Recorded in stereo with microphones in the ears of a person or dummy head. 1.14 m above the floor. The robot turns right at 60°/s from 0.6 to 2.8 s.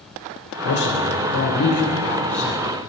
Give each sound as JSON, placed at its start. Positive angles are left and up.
{"t": 0.6, "sound": "a man speaking", "azimuth_deg": 70, "distance_m": 4.0}